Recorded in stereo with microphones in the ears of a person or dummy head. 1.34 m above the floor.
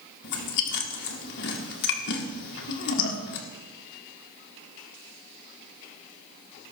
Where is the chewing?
60° left (ahead or behind), 1.5 m.